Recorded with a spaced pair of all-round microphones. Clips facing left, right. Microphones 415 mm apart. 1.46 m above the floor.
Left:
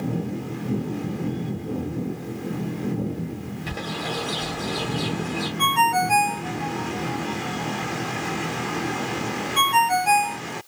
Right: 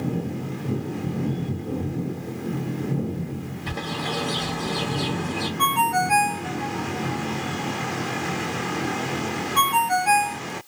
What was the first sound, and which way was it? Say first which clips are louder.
A bird: right 2 dB; 15° right (ahead or behind).